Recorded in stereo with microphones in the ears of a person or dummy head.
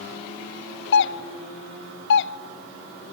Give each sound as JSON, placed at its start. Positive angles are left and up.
{"t": 0.9, "sound": "a doorbell", "side_deg": 70, "distance_m": 0.8}